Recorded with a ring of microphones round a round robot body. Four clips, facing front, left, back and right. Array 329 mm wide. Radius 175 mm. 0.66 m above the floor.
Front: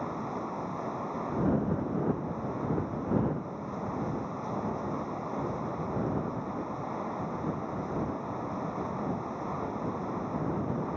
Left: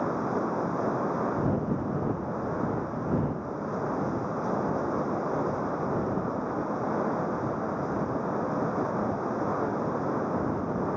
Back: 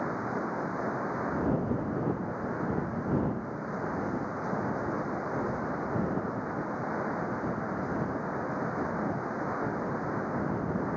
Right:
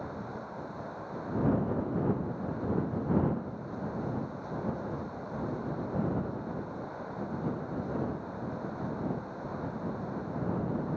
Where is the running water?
105° left.